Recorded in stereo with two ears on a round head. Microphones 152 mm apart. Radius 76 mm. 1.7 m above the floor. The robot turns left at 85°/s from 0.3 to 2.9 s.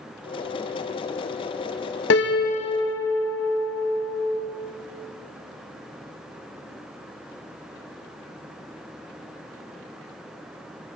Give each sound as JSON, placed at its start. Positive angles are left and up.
{"t": 2.1, "sound": "a piano", "azimuth_deg": 80, "distance_m": 0.8}